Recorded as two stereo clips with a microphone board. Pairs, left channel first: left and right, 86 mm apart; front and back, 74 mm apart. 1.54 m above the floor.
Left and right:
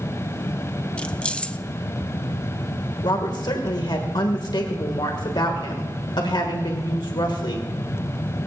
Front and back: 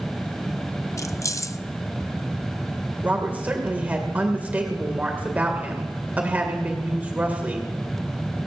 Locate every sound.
1.0 s keys jangling: 15° left, 0.5 m
3.0 s a woman speaking: 115° left, 2 m